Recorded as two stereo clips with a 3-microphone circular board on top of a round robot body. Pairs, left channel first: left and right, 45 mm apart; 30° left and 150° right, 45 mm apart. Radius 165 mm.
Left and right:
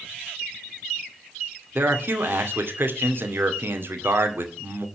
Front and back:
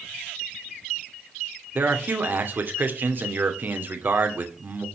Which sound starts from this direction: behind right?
A man speaking, at 1.8 s.